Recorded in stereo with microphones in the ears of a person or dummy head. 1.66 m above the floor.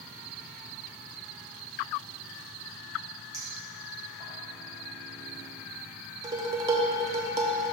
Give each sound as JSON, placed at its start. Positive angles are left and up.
{"t": 3.3, "sound": "a clink", "side_deg": -25, "distance_m": 2.5}
{"t": 6.2, "sound": "dishes clattering", "side_deg": -25, "distance_m": 0.8}